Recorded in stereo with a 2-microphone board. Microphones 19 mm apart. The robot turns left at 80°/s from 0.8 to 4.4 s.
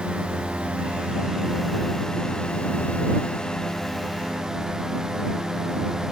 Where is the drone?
105° right; by 6.1 s 35° right.